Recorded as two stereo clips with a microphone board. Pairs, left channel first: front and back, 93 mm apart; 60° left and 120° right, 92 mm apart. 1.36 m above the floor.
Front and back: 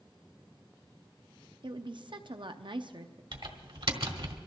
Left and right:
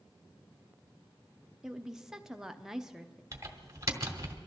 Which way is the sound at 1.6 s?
155° left.